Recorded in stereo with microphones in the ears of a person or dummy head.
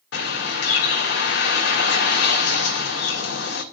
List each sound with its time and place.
0.1 s a bird: 70° left (ahead or behind), 2.5 m